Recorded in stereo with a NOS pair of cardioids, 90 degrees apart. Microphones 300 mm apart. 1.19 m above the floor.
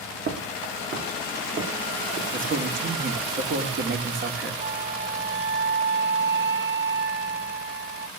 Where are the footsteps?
45° right, 5.5 m.